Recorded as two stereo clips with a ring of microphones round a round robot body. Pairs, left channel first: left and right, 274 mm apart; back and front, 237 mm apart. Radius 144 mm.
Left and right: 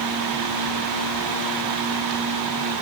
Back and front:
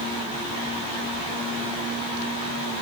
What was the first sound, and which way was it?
Only background noise.